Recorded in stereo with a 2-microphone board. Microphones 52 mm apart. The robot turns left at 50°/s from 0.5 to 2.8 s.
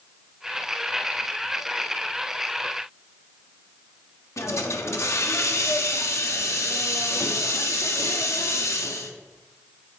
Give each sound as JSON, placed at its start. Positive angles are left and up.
{"t": 4.4, "sound": "a hiss", "side_deg": 70, "distance_m": 1.3}